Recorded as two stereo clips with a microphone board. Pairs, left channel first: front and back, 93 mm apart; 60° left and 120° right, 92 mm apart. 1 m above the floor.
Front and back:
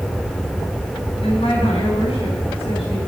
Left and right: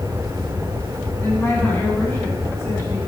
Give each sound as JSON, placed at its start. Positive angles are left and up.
{"t": 1.2, "sound": "a woman speaking", "azimuth_deg": -5, "distance_m": 6.5}